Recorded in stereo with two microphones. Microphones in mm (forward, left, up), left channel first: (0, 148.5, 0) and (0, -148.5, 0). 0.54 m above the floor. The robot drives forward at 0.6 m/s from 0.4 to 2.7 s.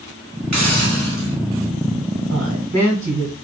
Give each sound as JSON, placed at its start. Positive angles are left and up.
{"t": 0.5, "sound": "a hiss", "side_deg": -65, "distance_m": 1.0}
{"t": 2.3, "sound": "a woman speaking", "side_deg": -65, "distance_m": 1.5}